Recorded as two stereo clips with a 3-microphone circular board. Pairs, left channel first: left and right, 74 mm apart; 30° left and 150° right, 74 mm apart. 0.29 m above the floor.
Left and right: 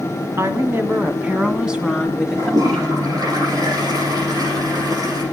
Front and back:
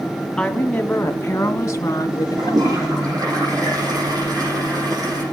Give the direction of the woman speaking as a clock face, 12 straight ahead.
2 o'clock.